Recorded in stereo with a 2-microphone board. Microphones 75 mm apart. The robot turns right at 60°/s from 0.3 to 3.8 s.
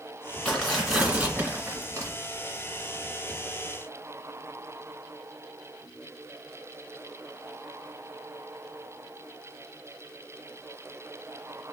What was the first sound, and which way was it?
Tearing paper, 155° left.